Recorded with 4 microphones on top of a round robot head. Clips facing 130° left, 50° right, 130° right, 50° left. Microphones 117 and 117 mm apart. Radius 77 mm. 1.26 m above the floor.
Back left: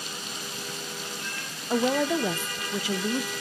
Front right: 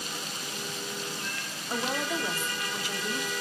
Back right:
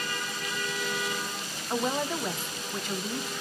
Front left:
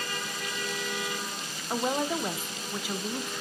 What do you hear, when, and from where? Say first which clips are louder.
1.7 s a woman speaking: back left 8 dB, front left 1 dB; 135° left, 0.6 m